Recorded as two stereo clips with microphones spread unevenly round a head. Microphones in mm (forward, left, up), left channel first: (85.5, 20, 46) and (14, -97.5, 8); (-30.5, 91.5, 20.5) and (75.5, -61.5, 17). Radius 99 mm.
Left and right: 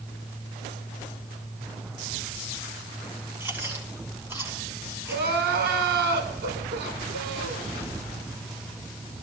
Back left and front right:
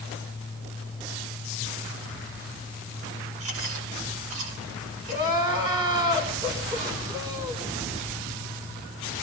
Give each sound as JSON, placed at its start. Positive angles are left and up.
{"t": 3.4, "sound": "chewing", "azimuth_deg": -45, "distance_m": 10.0}
{"t": 5.1, "sound": "crying", "azimuth_deg": -130, "distance_m": 5.0}